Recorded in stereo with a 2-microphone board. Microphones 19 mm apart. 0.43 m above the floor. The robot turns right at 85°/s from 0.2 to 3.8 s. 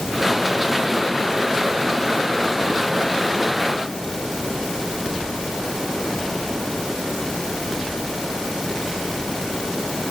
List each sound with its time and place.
Only background noise.